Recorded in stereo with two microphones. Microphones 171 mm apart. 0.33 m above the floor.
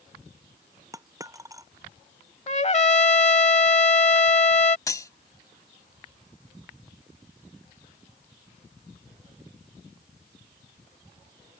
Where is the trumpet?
40° left (ahead or behind).